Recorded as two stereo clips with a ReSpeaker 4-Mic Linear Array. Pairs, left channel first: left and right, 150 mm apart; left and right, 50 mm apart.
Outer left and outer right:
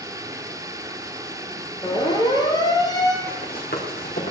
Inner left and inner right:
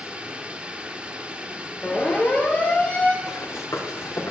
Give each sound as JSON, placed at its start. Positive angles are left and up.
{"t": 0.0, "sound": "running water", "side_deg": -20, "distance_m": 1.7}
{"t": 1.8, "sound": "a siren", "side_deg": 30, "distance_m": 3.0}
{"t": 3.3, "sound": "running footsteps", "side_deg": 90, "distance_m": 5.5}